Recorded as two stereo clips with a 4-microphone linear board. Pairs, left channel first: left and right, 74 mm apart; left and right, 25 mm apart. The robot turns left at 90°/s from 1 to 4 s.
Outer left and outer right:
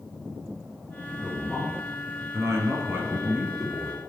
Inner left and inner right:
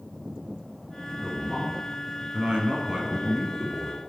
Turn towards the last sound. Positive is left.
turn(degrees=135)